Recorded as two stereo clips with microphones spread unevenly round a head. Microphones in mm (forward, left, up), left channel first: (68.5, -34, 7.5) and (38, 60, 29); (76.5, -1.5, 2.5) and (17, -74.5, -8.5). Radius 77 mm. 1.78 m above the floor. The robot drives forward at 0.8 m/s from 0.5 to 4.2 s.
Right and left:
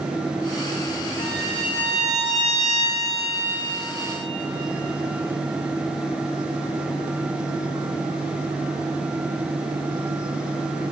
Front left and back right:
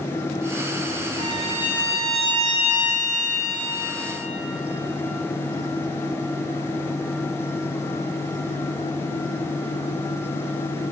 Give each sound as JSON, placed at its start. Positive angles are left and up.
{"t": 1.2, "sound": "a violin", "azimuth_deg": -115, "distance_m": 4.5}